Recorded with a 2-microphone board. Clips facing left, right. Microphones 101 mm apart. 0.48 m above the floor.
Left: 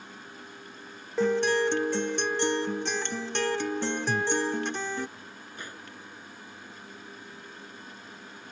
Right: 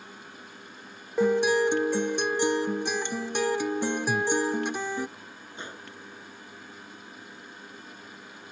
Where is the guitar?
10° right (ahead or behind).